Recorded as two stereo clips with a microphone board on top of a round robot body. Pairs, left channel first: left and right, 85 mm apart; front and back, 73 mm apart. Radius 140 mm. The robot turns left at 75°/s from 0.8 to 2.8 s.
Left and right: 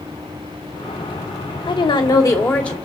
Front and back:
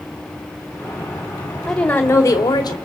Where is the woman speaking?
90° left, 2.5 m; by 2.8 s 5° left, 2.5 m.